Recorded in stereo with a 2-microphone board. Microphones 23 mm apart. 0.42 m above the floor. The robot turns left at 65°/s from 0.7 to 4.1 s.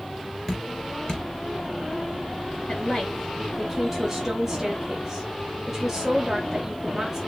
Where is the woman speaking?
50° left (ahead or behind), 2.5 m; by 7.2 s 25° right (ahead or behind), 2.5 m.